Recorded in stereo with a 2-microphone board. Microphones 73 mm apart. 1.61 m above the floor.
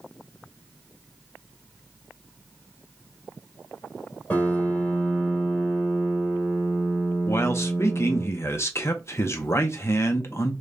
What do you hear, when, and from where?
4.3 s a piano: 25° left (ahead or behind), 1.7 m
7.3 s a man speaking: 40° left (ahead or behind), 0.7 m